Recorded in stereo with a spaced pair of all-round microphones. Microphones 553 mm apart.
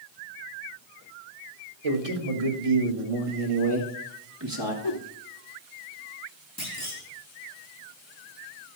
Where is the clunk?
30° left (ahead or behind), 3 m.